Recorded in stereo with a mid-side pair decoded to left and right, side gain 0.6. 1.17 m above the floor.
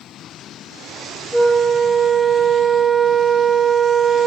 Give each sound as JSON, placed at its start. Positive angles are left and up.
{"t": 1.3, "sound": "a flute", "azimuth_deg": 0, "distance_m": 1.0}